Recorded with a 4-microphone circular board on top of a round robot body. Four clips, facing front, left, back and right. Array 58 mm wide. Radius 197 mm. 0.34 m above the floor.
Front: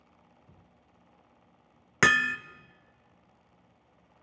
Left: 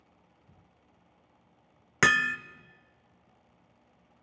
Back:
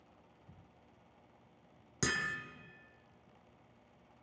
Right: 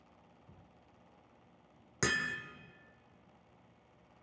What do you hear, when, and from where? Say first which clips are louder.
2.0 s hammering: left 10 dB, front 13 dB; 40° left, 1.0 m